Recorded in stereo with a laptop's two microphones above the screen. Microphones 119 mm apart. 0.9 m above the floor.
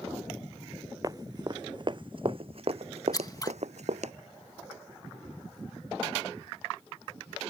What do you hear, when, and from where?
1.0 s running footsteps: 30° right (ahead or behind); by 4.1 s 70° right (ahead or behind)
3.1 s scissors: 30° left (ahead or behind)